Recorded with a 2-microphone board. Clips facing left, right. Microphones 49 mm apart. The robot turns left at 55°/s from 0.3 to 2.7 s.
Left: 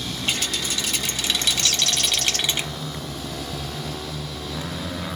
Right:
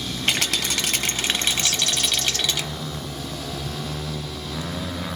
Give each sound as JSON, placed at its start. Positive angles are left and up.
{"t": 0.3, "sound": "a rattle", "azimuth_deg": -80, "distance_m": 0.5}
{"t": 1.6, "sound": "a bird", "azimuth_deg": 105, "distance_m": 0.6}